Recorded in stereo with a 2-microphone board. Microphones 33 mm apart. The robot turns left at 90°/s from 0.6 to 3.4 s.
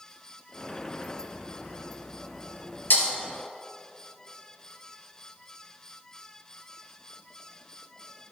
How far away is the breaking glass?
About 3 m.